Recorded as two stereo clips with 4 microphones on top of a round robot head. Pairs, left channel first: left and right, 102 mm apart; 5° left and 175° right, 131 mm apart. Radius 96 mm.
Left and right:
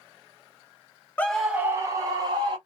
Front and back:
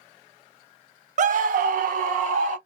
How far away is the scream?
About 0.7 m.